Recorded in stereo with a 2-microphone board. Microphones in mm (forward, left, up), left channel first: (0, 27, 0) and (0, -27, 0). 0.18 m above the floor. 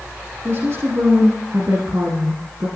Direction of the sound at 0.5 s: 50° right (ahead or behind).